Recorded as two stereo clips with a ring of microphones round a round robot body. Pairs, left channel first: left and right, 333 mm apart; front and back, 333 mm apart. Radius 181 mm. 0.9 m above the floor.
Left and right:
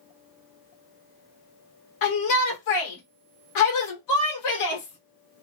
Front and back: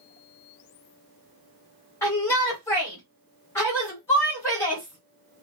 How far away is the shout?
About 1.1 m.